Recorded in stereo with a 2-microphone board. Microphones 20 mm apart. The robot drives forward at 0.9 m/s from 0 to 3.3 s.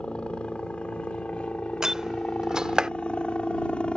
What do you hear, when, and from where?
0.0 s a helicopter: 70° left (ahead or behind); by 4.0 s 65° left (ahead or behind)
1.8 s a door slam: 30° right (ahead or behind); by 2.9 s 45° right (ahead or behind)